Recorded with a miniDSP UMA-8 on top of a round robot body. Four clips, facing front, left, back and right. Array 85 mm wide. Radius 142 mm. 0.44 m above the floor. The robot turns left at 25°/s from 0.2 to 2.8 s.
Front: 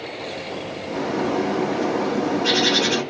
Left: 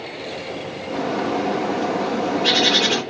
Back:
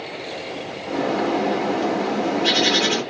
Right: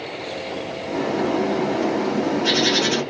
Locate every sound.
0.9 s a bird: 160° left, 1.6 m; by 3.0 s 115° left, 1.6 m